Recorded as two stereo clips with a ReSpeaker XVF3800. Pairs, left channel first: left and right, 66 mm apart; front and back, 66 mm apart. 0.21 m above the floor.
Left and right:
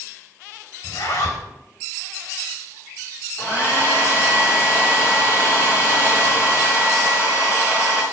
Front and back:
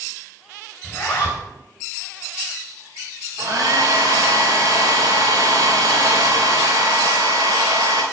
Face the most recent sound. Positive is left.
turn(degrees=140)